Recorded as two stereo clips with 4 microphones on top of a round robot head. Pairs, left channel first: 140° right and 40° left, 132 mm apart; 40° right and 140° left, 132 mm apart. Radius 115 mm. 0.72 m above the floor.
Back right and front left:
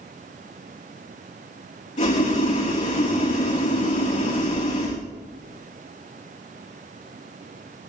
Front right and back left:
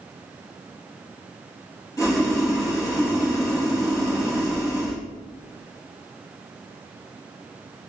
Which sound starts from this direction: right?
Boiling, at 2.0 s.